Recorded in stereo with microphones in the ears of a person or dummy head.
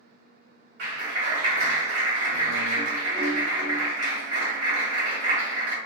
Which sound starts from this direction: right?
A clap, at 0.8 s.